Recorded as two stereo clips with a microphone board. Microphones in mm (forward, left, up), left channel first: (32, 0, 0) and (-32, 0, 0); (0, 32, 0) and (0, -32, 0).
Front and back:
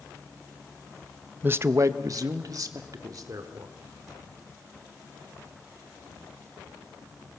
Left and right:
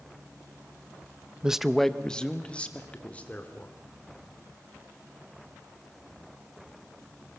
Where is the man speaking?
155° right, 0.6 m; by 3.7 s 155° left, 3 m.